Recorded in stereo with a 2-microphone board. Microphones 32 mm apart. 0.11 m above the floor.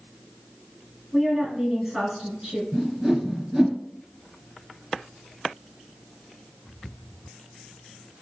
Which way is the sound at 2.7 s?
15° right (ahead or behind).